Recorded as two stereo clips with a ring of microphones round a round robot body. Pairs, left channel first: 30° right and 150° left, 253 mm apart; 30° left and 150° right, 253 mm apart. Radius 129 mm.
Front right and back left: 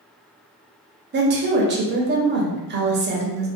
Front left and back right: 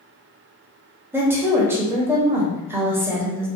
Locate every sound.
1.1 s a woman speaking: 135° left, 0.7 m